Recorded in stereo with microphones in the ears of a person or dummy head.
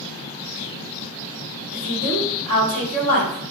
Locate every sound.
1.7 s a woman speaking: 35° left (ahead or behind), 1.7 m